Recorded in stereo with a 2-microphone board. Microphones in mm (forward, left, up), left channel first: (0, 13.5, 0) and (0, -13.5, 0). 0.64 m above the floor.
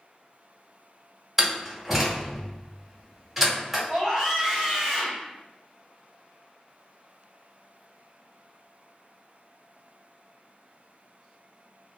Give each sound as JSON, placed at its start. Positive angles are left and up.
{"t": 1.4, "sound": "a door slam", "side_deg": -5, "distance_m": 1.6}
{"t": 3.9, "sound": "a scream", "side_deg": -25, "distance_m": 1.1}